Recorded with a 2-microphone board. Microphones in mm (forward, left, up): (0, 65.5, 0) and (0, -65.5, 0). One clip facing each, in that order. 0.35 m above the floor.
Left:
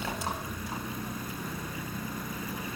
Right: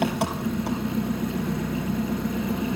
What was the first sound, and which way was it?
An engine running, 90° right.